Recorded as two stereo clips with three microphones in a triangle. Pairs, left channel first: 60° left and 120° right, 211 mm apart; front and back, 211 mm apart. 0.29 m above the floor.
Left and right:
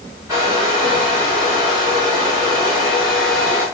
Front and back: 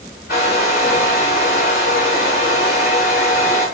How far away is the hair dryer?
About 5 m.